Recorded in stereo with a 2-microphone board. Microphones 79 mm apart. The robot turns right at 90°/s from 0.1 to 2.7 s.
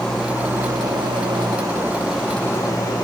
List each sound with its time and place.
0.0 s an engine running: 170° left, 7.5 m; by 3.0 s 45° left, 7.5 m